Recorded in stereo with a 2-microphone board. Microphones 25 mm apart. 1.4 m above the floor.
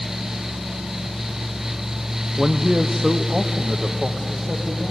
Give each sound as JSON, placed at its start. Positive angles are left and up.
{"t": 2.4, "sound": "a man speaking", "side_deg": -10, "distance_m": 0.8}